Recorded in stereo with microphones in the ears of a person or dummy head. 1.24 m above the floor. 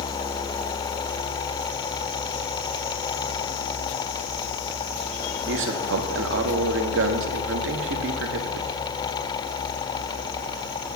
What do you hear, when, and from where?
5.5 s a man speaking: 65° right (ahead or behind), 0.8 m